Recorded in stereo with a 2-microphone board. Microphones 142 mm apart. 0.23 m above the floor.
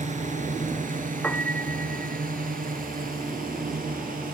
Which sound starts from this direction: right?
A drone, at 0.0 s.